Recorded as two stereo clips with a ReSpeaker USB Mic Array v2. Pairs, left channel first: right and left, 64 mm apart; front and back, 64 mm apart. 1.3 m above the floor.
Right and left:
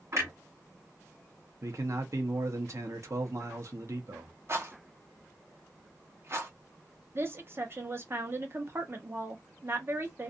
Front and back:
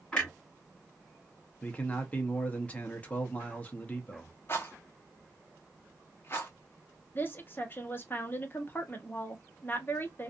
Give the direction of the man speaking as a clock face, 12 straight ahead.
10 o'clock.